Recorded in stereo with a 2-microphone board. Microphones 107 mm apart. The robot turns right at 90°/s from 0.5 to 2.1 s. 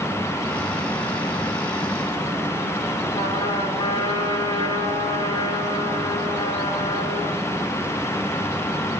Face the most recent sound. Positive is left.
turn(degrees=30)  # may be behind; listen again after turning